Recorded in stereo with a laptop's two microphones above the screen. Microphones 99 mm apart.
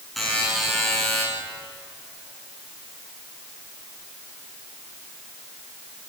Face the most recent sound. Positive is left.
turn(degrees=0)  # may be behind; listen again after turning